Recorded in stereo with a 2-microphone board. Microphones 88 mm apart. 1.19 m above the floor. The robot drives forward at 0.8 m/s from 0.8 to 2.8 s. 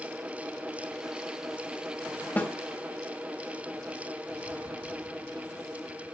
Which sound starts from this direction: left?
A snare drum, at 2.4 s.